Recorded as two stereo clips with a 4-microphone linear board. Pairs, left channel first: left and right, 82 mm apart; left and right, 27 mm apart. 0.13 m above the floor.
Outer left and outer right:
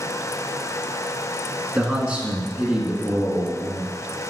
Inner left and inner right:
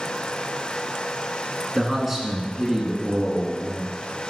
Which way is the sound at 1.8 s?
15° right (ahead or behind).